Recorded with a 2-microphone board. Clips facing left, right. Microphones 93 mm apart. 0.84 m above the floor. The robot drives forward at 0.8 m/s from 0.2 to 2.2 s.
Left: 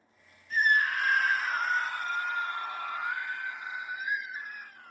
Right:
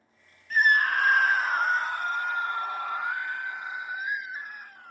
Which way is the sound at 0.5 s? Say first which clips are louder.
Right 3 dB; 60° right (ahead or behind).